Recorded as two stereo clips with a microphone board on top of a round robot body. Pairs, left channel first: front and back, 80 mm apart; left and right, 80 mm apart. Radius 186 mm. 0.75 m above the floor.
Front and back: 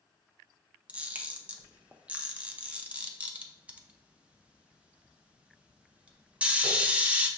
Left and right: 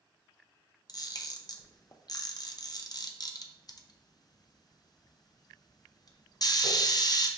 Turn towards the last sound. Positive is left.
turn(degrees=110)